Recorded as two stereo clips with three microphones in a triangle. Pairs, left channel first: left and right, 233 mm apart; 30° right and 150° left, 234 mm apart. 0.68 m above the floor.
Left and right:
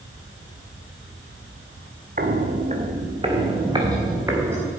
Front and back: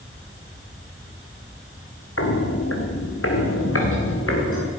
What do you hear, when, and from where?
2.2 s footsteps: 40° right, 2 m; by 4.7 s 10° right, 3.5 m